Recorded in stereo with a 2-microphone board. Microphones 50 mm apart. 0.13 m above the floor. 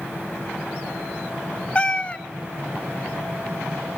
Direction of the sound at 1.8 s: 25° left (ahead or behind).